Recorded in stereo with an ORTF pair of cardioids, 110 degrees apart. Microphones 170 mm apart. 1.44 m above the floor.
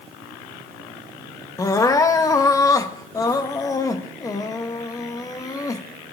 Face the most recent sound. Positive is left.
turn(degrees=20)